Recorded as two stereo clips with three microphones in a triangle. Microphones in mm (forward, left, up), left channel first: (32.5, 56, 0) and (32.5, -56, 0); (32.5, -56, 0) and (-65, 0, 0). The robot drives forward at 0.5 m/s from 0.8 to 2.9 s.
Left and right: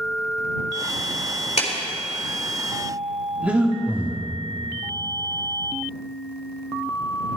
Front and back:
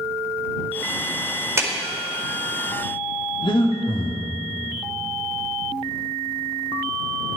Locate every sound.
1.6 s a clap: 85° left, 1.9 m; by 1.7 s 90° left, 1.9 m
3.4 s breathing: 15° right, 1.3 m